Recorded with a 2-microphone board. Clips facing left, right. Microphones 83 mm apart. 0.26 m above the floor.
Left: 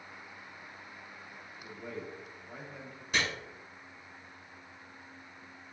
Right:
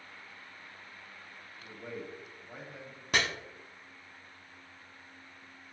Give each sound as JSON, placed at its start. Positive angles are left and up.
{"t": 1.6, "sound": "a man speaking", "side_deg": -5, "distance_m": 1.2}
{"t": 3.1, "sound": "chopping", "side_deg": -60, "distance_m": 0.7}